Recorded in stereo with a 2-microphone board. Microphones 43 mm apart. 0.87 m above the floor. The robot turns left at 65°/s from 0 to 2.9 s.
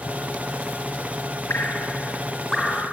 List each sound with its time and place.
1.5 s dripping: 70° left (ahead or behind), 4.5 m; by 2.9 s 15° right (ahead or behind), 4.5 m